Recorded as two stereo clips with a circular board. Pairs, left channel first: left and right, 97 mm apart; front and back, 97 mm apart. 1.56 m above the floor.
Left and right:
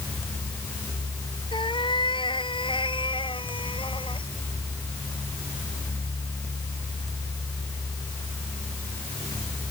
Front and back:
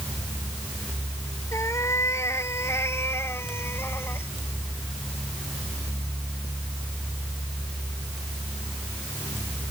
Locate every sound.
1.5 s a cat meowing: 60° left; by 4.3 s 65° left